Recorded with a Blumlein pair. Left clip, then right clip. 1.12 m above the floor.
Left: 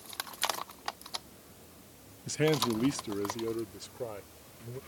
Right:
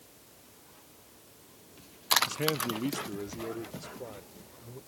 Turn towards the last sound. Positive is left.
turn(degrees=15)